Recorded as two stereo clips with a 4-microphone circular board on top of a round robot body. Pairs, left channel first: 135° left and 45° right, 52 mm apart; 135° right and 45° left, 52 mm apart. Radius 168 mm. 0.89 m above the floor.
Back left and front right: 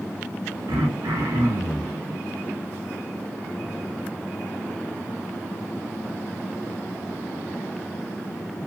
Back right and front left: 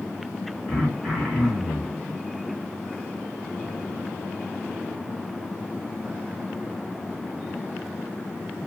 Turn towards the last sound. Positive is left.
turn(degrees=-45)